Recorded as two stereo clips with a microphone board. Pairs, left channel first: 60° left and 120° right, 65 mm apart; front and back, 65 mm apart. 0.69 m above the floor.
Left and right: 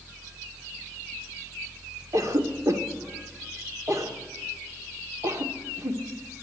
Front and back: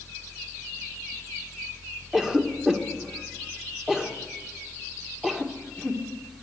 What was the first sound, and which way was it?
A cough, 100° right.